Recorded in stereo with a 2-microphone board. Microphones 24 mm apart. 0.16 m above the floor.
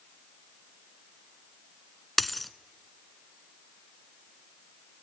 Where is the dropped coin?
Centre (ahead or behind), 0.8 m.